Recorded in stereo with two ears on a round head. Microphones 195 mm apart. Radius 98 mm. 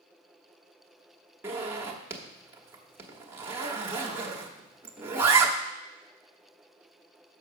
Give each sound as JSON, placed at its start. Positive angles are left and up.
{"t": 1.4, "sound": "a zipper", "side_deg": -10, "distance_m": 1.0}